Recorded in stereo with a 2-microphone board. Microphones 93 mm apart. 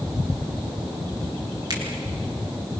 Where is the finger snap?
45° right (ahead or behind), 7 m.